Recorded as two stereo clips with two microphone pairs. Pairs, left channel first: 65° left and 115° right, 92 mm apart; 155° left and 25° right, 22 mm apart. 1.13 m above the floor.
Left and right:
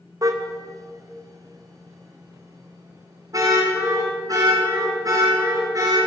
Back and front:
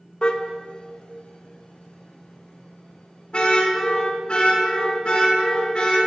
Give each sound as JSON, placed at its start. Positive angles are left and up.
{"t": 0.2, "sound": "a car horn", "azimuth_deg": -165, "distance_m": 2.5}